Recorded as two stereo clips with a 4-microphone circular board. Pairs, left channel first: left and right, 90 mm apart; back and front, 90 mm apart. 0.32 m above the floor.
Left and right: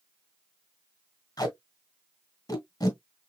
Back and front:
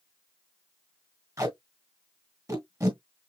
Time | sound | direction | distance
1.4 | tape being pulled | 50° left | 1.9 m